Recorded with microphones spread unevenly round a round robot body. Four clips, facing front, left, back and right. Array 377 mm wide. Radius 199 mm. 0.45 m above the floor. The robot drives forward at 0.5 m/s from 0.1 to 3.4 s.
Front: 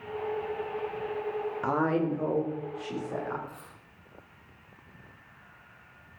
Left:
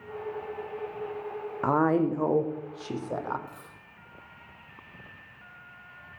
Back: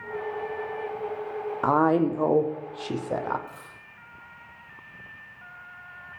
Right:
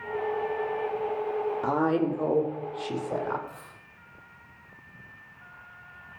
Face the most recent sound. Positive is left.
turn(degrees=115)